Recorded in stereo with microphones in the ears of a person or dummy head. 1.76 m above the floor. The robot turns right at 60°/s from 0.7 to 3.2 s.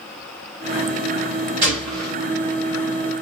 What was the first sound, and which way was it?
A gunshot, 20° right (ahead or behind).